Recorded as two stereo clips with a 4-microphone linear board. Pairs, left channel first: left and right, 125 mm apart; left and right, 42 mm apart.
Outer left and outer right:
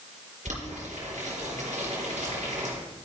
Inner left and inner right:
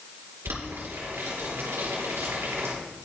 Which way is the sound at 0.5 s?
80° right.